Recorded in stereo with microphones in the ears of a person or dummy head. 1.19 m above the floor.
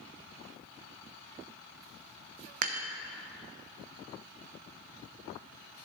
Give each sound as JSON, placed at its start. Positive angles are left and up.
{"t": 2.6, "sound": "dishes clattering", "side_deg": -45, "distance_m": 0.5}